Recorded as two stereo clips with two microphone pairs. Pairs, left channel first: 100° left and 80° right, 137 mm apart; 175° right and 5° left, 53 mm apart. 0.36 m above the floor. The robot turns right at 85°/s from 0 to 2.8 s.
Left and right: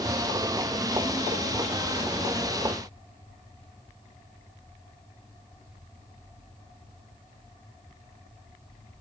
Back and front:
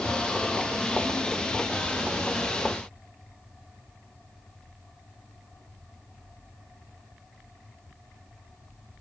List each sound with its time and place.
Only background noise.